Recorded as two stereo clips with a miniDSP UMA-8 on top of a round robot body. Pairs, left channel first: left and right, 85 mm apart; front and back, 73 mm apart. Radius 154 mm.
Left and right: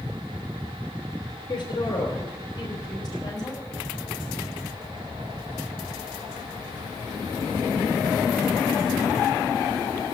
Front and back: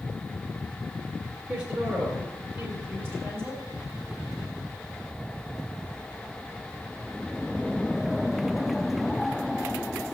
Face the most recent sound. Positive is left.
turn(degrees=130)